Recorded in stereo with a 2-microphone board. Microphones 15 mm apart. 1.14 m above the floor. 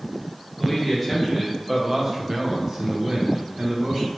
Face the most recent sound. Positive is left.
turn(degrees=-50)  # may be behind; listen again after turning